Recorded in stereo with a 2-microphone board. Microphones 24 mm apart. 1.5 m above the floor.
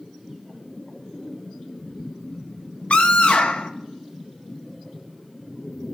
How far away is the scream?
About 0.7 m.